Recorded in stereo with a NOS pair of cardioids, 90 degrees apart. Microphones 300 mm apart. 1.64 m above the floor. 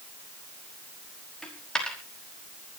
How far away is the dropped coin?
About 5 m.